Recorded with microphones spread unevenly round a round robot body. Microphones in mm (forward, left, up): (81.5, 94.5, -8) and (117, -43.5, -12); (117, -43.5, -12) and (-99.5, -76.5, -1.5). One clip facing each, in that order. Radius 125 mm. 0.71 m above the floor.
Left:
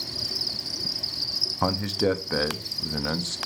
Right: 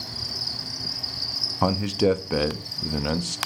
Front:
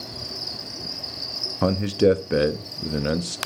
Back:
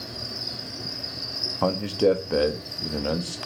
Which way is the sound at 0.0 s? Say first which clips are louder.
Left 1 dB, even; 90° left.